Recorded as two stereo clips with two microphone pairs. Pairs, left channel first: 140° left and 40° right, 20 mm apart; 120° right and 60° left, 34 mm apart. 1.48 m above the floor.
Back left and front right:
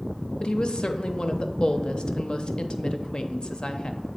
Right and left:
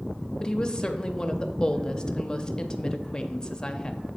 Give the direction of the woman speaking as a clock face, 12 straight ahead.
6 o'clock.